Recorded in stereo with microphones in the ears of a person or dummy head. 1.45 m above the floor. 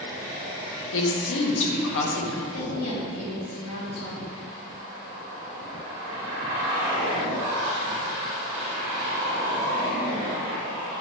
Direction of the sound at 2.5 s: 85° left.